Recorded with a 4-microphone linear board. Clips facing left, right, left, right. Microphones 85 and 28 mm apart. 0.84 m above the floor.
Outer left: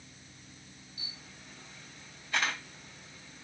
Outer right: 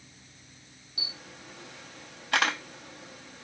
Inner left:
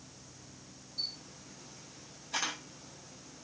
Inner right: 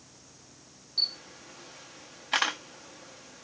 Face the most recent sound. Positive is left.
turn(degrees=-85)